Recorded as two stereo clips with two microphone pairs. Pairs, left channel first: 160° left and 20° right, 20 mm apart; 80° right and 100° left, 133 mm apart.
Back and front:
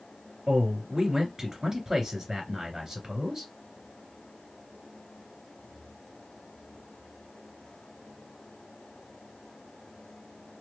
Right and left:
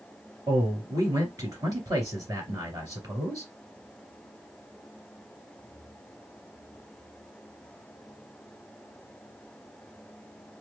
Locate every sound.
0.5 s a man speaking: 40° left, 2.5 m